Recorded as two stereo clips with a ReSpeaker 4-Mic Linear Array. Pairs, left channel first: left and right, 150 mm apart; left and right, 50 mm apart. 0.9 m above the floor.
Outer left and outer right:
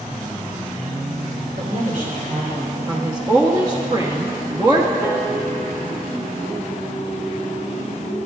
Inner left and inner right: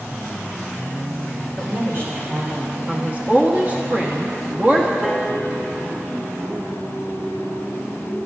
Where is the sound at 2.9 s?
25° right (ahead or behind), 1.2 m.